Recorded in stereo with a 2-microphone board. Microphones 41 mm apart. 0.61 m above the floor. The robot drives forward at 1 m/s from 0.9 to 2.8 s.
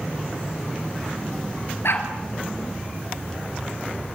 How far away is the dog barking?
About 3 m.